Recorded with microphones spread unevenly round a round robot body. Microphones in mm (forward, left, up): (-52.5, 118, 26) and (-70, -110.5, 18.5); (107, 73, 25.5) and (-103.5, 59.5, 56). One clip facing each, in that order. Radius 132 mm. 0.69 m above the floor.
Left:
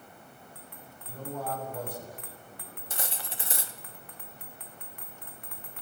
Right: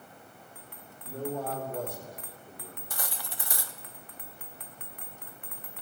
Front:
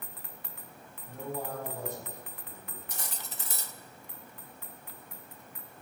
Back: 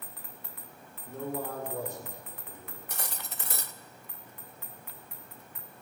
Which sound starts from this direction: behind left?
Cutlery clinking, at 2.9 s.